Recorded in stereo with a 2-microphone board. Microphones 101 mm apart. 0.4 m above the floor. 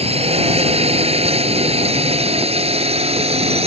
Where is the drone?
80° right.